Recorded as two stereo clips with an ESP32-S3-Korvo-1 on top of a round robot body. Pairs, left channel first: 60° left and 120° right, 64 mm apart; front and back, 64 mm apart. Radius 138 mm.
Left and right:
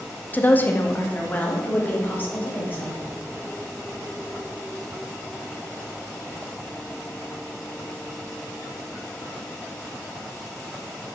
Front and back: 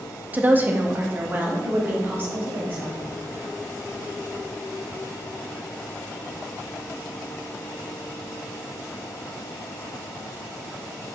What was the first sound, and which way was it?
A woman speaking, 120° left.